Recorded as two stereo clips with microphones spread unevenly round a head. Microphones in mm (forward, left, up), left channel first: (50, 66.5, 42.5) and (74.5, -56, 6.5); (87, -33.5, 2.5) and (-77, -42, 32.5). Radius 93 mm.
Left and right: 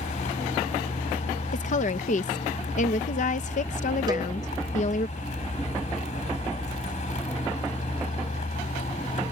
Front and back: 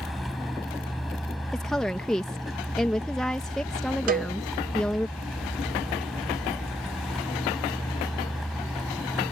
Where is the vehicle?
100° left.